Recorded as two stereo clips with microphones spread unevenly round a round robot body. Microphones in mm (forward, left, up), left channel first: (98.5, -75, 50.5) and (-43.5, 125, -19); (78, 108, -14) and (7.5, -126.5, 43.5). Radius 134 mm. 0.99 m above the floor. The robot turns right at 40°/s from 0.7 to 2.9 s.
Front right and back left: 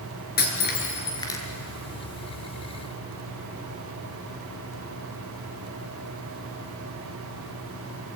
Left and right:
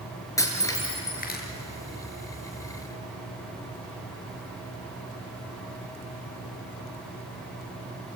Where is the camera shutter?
I don't hear a camera shutter.